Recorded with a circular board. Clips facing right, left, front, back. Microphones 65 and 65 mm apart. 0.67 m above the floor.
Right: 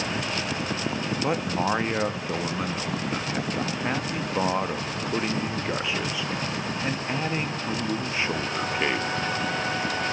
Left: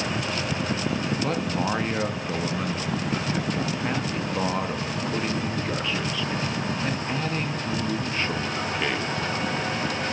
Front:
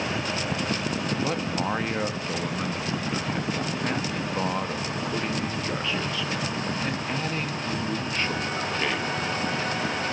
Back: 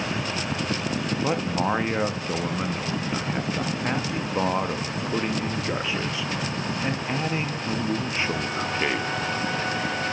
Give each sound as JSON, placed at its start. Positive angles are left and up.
{"t": 1.2, "sound": "a man speaking", "azimuth_deg": -140, "distance_m": 0.6}